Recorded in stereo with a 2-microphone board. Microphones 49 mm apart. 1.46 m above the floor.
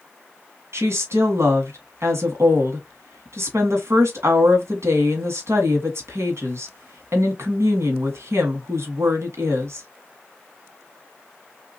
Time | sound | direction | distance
0.7 | a woman speaking | 70° right (ahead or behind) | 1.4 m